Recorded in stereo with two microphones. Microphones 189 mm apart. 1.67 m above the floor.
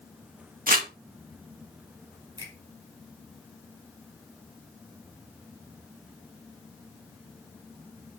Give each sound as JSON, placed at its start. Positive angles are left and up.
{"t": 0.7, "sound": "crumpling", "side_deg": -50, "distance_m": 2.0}
{"t": 2.4, "sound": "a finger snap", "side_deg": -25, "distance_m": 6.0}